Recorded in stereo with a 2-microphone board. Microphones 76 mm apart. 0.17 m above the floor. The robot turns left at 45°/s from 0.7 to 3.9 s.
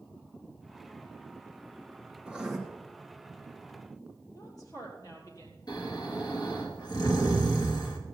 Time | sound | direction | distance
2.2 | writing | 15° right (ahead or behind) | 3 m
4.3 | a woman speaking | 50° left (ahead or behind) | 4 m
5.7 | snoring | 60° left (ahead or behind) | 3.5 m